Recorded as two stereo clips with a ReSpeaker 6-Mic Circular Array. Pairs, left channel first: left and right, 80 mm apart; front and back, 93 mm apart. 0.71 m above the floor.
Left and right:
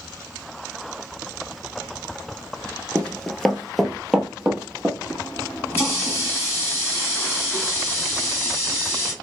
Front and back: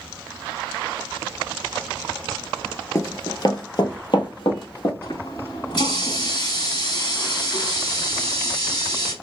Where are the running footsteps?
25° left, 0.8 m; by 4.9 s 15° right, 1.6 m.